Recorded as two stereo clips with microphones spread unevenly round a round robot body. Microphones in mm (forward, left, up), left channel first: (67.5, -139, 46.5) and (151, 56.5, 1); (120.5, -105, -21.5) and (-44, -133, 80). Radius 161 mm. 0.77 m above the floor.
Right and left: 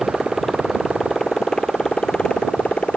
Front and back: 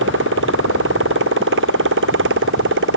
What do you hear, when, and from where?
0.0 s a motorcycle: 160° left